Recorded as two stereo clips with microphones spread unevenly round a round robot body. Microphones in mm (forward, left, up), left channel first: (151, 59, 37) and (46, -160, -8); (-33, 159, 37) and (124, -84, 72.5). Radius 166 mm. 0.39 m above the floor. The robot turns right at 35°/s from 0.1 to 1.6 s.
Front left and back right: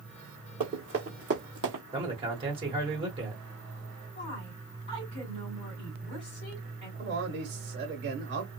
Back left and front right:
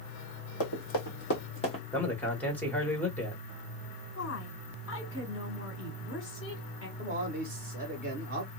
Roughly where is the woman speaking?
Behind left.